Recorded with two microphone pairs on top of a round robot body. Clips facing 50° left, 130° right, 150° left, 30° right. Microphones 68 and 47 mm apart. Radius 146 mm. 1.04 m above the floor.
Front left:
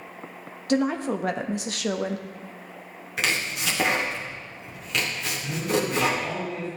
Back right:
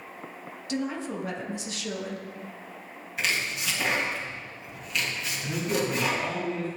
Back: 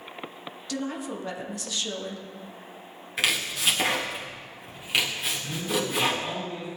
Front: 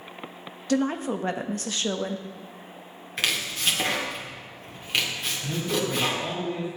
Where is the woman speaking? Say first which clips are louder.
Front left 7 dB, front 7 dB; 15° left, 1.3 m.